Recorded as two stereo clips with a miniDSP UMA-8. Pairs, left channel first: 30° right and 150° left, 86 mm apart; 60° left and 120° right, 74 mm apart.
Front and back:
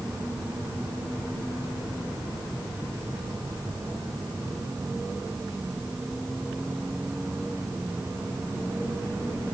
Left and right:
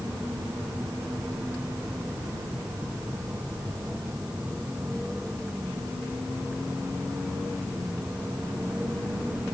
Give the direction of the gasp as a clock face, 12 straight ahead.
I don't hear a gasp.